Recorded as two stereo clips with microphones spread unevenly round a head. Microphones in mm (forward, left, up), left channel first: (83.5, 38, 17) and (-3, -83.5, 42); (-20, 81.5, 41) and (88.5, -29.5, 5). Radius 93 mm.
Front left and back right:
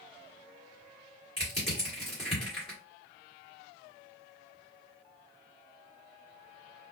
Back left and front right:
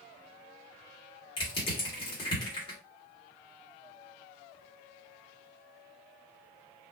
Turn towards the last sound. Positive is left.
turn(degrees=115)